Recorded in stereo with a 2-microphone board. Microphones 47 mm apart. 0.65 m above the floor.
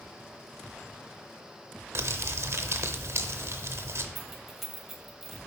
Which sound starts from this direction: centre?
Keys jangling, at 4.2 s.